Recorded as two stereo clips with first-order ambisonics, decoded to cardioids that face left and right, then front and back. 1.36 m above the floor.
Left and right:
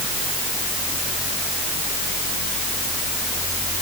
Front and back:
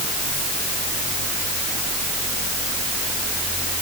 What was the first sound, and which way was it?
Only background noise.